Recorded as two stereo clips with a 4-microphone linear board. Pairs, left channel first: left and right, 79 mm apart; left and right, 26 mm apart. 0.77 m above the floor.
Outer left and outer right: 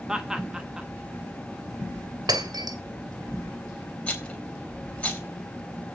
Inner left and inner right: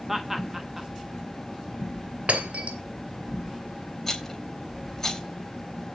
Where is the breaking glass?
65° right (ahead or behind), 2 m.